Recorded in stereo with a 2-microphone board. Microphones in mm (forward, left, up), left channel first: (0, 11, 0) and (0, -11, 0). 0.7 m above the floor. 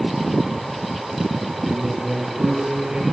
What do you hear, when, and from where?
1.6 s a man speaking: 80° right, 7 m